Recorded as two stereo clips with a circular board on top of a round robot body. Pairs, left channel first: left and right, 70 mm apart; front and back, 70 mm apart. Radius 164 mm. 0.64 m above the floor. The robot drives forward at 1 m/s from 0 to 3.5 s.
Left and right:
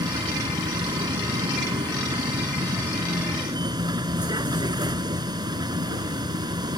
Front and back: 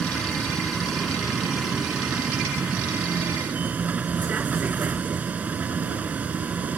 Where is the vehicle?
80° right; by 6.8 s 110° right.